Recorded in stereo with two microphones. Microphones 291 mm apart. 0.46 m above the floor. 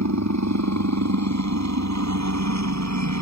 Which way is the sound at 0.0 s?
70° right (ahead or behind).